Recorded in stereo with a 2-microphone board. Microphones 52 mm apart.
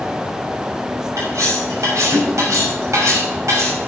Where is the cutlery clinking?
75° right (ahead or behind), 6 m.